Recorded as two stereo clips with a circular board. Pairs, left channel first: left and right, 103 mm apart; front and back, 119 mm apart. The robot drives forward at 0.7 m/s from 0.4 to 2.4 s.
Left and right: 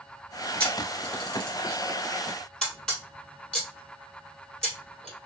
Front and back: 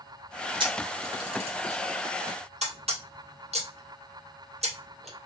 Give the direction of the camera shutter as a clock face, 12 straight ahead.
7 o'clock.